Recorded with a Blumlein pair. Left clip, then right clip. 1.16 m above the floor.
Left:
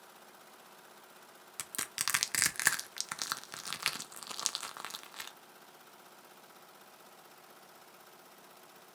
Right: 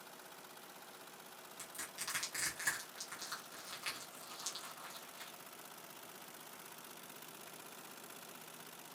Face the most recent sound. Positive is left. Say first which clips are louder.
# left 10 dB
turn(degrees=55)